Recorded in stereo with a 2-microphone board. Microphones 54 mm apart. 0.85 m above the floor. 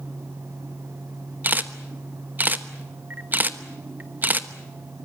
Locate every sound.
1.4 s a camera shutter: 35° right (ahead or behind), 1.1 m